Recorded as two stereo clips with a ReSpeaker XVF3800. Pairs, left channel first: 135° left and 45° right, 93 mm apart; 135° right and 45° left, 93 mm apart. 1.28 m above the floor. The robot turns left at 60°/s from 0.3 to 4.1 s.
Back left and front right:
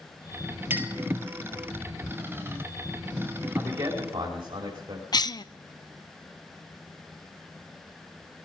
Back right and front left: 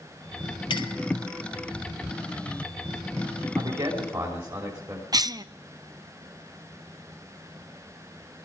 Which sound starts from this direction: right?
A clink, at 0.7 s.